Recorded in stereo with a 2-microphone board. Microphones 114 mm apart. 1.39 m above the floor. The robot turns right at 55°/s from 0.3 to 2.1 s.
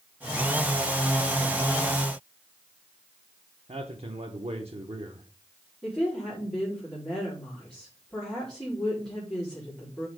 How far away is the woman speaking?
About 4 m.